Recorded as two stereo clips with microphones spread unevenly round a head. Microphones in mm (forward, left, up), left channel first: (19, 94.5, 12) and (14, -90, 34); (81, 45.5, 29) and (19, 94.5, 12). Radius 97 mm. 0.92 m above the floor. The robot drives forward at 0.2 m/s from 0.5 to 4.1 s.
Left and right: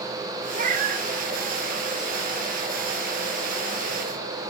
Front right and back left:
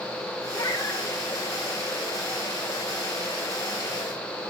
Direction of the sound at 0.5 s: 70° right.